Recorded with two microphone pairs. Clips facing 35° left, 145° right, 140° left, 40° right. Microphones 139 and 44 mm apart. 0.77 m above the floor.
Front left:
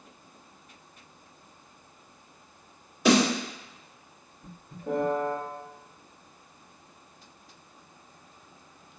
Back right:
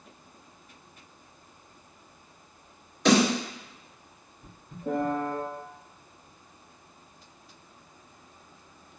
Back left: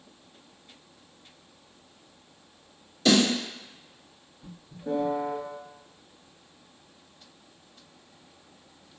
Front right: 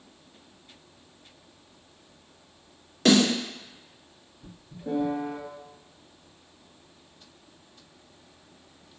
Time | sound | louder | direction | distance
3.0 | a snare drum | even, front right 2 dB | 45° right | 1.8 m
4.8 | a piano | front left 1 dB, back left 1 dB | 120° right | 1.0 m